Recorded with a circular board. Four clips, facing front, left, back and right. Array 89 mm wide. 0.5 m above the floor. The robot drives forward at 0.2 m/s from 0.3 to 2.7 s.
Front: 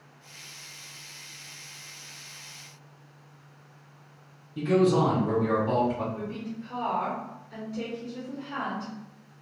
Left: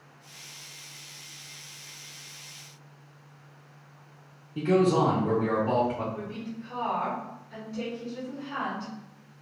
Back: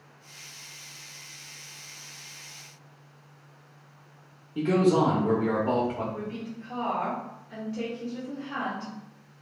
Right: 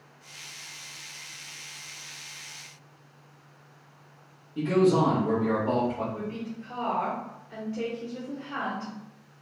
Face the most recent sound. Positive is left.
turn(degrees=-155)